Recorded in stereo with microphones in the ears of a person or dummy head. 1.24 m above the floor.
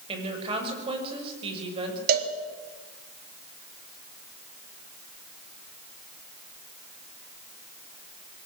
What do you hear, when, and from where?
0.1 s a woman speaking: 25° right (ahead or behind), 6.5 m
2.1 s a cowbell: 50° right (ahead or behind), 3 m